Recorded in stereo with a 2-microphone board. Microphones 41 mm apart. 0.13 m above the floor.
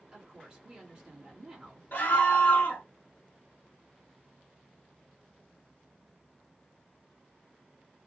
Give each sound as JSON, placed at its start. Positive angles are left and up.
{"t": 0.1, "sound": "a woman speaking", "side_deg": -25, "distance_m": 1.7}
{"t": 1.9, "sound": "a scream", "side_deg": 40, "distance_m": 1.3}